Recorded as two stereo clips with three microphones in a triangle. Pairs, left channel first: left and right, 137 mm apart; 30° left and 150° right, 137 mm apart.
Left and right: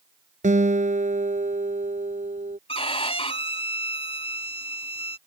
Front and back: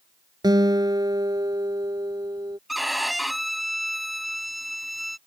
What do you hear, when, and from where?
0.4 s a guitar: 95° right
2.7 s a violin: 120° left